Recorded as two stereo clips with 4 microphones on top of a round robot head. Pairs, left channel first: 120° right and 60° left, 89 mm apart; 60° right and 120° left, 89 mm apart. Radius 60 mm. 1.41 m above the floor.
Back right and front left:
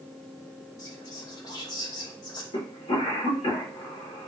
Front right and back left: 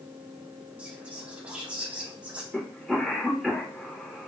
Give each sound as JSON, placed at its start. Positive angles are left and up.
{"t": 0.8, "sound": "whispering", "azimuth_deg": -165, "distance_m": 1.3}
{"t": 2.5, "sound": "a cough", "azimuth_deg": -145, "distance_m": 1.9}